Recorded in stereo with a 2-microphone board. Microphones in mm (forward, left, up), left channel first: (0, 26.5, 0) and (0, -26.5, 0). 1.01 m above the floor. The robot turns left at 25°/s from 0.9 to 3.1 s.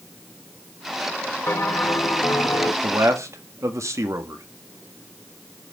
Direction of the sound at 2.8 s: 75° right (ahead or behind).